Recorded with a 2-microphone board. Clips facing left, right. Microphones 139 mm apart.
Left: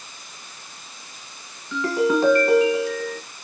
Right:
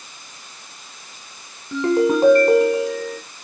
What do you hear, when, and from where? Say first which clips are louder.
1.7 s a ringtone: right 3 dB; 40° right (ahead or behind), 1.2 m